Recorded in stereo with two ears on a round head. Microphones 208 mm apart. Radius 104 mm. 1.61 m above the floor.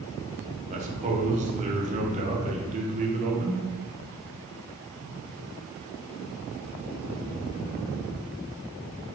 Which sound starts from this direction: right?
A man speaking, at 0.7 s.